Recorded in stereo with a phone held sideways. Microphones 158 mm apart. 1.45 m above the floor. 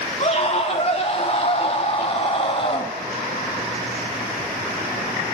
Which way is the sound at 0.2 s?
45° left (ahead or behind).